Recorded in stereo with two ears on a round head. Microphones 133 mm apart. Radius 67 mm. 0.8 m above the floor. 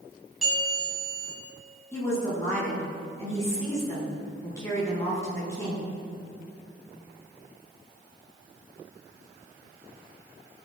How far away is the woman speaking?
About 7.5 m.